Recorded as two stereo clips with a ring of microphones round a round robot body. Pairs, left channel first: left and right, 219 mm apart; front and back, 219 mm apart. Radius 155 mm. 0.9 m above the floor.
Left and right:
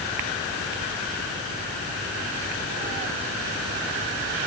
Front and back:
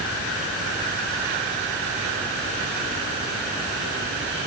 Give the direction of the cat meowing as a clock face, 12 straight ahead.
No cat meowing in this recording.